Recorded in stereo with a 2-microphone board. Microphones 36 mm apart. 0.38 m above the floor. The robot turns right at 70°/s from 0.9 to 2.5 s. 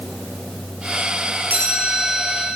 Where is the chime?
120° right, 4 m; by 2.5 s 55° right, 4 m.